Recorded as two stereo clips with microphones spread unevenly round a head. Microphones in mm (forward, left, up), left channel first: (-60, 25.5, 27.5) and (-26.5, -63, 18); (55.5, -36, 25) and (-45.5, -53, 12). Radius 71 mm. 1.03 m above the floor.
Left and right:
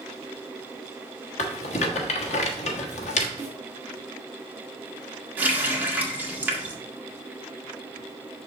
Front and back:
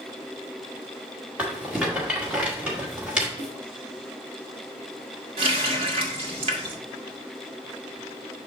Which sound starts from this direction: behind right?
A running tap, at 5.4 s.